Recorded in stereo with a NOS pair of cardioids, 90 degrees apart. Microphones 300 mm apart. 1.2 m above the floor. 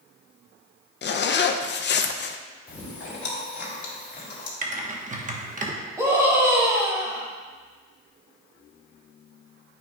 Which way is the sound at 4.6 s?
25° right.